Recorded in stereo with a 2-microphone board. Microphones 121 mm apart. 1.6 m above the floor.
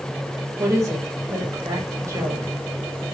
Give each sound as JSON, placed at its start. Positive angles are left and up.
{"t": 0.6, "sound": "a woman speaking", "side_deg": -25, "distance_m": 1.5}